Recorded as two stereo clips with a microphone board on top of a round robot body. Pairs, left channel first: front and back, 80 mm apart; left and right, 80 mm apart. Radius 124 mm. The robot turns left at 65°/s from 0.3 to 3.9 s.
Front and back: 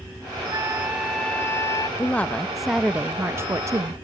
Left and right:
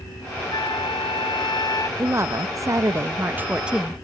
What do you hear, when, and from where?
0.5 s a flute: 130° left; by 1.9 s 40° left
2.0 s a woman speaking: 50° right; by 4.0 s 175° right